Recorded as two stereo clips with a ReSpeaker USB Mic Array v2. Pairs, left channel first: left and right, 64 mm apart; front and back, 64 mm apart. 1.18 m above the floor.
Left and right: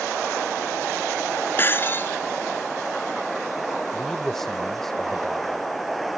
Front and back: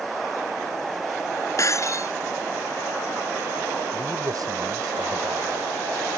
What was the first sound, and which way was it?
Breaking glass, 35° left.